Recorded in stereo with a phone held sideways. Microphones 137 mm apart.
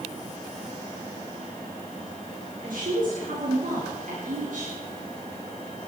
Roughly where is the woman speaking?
Right.